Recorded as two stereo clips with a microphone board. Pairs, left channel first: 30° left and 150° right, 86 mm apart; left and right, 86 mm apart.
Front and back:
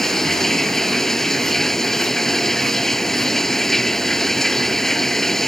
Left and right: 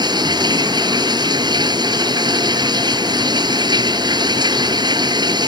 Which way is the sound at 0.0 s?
55° right.